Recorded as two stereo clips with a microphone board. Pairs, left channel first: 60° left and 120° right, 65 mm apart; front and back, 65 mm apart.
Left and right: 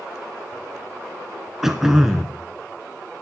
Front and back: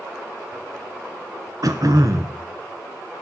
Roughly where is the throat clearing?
Behind left.